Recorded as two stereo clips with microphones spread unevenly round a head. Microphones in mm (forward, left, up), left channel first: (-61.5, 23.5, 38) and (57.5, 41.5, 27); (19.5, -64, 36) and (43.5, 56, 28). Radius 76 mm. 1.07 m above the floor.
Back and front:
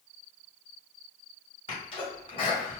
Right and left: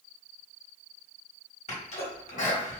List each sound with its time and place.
1.7 s a sneeze: 125° right, 1.5 m